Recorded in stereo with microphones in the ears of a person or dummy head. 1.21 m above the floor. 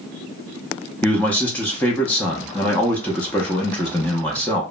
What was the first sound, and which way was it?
A man speaking, 5° left (ahead or behind).